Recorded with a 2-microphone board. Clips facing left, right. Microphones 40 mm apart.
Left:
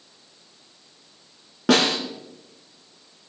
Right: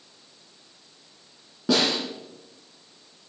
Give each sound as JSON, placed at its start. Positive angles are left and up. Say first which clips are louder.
{"t": 1.7, "sound": "a snare drum", "louder": "left 4 dB", "side_deg": 70, "distance_m": 2.5}